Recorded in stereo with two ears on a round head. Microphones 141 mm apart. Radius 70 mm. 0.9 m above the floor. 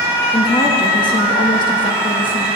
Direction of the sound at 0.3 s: 35° left (ahead or behind).